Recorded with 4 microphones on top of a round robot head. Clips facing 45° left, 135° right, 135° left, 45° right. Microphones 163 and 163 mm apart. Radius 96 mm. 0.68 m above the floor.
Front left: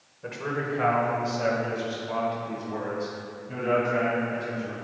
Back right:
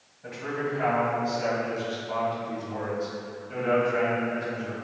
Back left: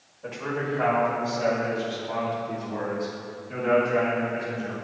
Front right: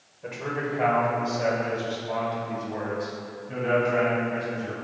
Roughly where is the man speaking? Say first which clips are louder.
Even, back left 1 dB; ahead left.